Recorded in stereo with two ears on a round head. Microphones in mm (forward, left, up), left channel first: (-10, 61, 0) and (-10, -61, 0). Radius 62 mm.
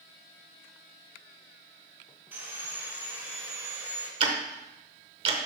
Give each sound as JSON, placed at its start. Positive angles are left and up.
{"t": 2.3, "sound": "sawing", "side_deg": -15, "distance_m": 1.9}
{"t": 4.2, "sound": "ticking", "side_deg": -40, "distance_m": 0.8}